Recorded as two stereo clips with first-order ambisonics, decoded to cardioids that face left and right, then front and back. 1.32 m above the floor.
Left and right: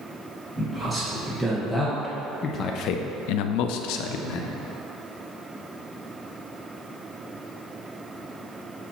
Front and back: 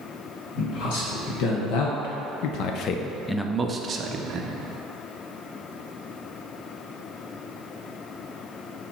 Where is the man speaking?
5° right, 1.5 m; by 4.5 s 130° left, 1.0 m.